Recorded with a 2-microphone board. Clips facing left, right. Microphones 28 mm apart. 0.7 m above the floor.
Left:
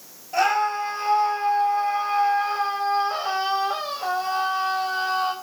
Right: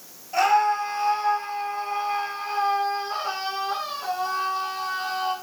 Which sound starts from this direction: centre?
A scream, at 0.3 s.